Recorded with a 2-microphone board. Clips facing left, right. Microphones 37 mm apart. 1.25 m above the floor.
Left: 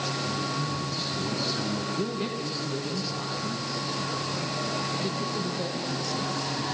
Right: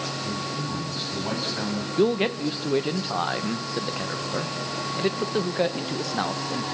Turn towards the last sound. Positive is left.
turn(degrees=-50)  # may be behind; listen again after turning